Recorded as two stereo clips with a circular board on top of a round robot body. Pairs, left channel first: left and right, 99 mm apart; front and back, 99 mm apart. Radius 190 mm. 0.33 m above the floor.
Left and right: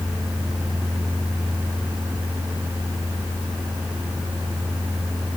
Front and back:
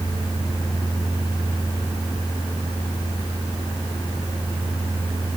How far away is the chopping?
No chopping in this recording.